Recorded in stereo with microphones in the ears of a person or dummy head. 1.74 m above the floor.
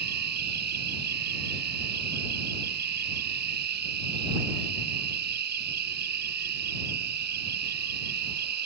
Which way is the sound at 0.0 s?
50° right (ahead or behind).